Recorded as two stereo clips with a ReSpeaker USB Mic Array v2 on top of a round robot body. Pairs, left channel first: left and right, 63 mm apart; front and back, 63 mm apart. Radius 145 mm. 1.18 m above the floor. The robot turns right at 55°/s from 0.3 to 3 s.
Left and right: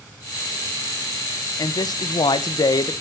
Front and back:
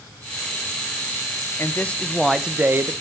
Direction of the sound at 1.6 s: 55° left.